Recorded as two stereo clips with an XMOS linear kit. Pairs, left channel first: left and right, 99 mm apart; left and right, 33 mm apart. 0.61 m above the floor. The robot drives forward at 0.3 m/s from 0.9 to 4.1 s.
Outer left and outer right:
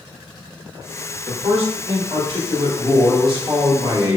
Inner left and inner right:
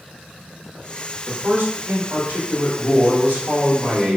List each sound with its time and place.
1.3 s a man speaking: 65° right (ahead or behind), 1.7 m; by 4.2 s 50° right (ahead or behind), 1.9 m